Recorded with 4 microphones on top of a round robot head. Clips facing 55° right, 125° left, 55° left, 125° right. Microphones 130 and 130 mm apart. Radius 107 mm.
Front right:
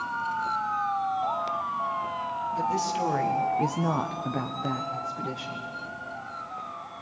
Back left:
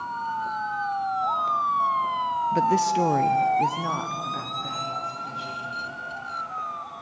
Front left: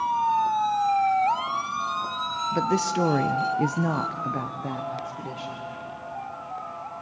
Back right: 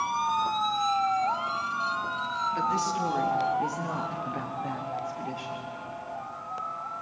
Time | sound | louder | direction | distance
2.5 | a woman speaking | back left 6 dB, front left 5 dB | 100° left | 0.9 m